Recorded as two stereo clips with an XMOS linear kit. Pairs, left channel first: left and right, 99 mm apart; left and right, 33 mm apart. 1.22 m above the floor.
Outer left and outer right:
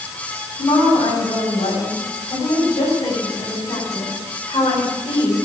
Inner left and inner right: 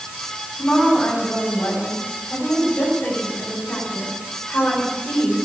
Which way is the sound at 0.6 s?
75° left (ahead or behind).